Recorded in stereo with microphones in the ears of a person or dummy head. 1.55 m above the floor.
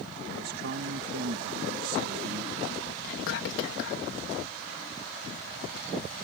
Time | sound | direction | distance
0.3 | a man speaking | 55° right (ahead or behind) | ?
3.0 | whispering | 75° left (ahead or behind) | ?